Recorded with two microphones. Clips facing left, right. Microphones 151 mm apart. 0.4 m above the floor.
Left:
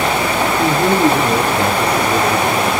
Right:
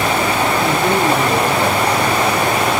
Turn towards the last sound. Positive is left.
turn(degrees=65)  # may be behind; listen again after turning